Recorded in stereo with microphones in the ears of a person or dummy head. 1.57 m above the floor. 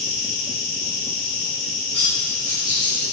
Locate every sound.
0.0 s an insect: 40° right (ahead or behind), 1.2 m
1.9 s cutlery clinking: 30° right (ahead or behind), 1.2 m